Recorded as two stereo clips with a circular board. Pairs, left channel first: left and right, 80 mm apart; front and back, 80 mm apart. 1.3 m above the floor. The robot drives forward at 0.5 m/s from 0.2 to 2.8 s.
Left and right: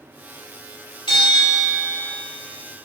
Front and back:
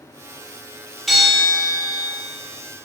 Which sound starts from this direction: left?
A bell, at 1.1 s.